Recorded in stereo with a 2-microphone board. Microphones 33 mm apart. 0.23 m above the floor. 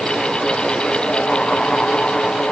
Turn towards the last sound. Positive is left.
No sound to turn to.